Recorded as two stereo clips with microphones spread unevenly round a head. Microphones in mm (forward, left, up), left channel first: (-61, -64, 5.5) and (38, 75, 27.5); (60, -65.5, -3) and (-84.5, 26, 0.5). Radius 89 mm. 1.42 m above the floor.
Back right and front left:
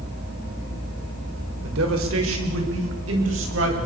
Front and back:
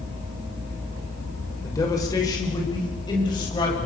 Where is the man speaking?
40° left, 5.5 m; by 3.9 s 35° left, 9 m.